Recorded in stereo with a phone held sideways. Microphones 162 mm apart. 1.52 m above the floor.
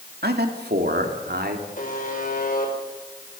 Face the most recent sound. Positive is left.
turn(degrees=55)  # may be behind; listen again after turning